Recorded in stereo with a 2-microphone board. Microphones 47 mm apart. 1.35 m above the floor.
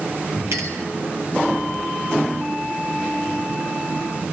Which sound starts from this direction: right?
A clink, at 0.5 s.